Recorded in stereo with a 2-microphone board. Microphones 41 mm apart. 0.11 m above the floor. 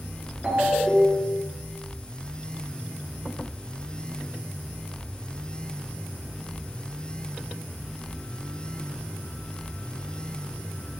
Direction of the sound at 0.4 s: 25° right (ahead or behind).